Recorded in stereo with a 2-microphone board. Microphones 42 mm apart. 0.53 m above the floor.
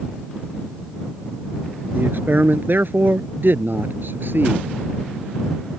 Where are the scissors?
No scissors in this recording.